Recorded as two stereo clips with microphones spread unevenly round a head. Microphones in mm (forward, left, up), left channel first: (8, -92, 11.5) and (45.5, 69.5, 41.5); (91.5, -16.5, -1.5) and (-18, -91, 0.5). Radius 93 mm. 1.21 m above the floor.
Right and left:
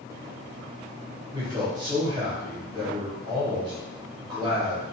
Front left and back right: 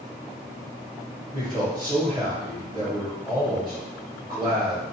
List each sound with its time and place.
1.3 s a man speaking: 145° left, 1.0 m